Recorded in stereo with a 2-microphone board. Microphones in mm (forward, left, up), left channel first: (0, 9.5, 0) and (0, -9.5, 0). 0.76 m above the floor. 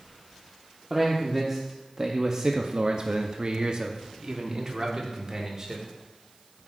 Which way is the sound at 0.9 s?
10° right (ahead or behind).